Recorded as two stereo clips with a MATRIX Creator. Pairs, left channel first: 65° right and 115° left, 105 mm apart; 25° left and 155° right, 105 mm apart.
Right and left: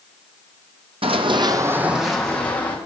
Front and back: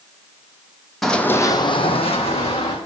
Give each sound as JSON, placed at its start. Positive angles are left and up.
{"t": 1.0, "sound": "running footsteps", "azimuth_deg": 110, "distance_m": 0.8}